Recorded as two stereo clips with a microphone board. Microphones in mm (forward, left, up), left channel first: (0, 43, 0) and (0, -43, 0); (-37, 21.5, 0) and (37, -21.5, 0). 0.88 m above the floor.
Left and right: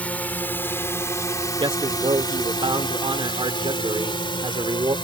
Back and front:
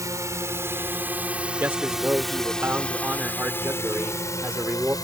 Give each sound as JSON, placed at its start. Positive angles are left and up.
{"t": 0.0, "sound": "a drone", "azimuth_deg": 20}
{"t": 1.6, "sound": "a man speaking", "azimuth_deg": -95}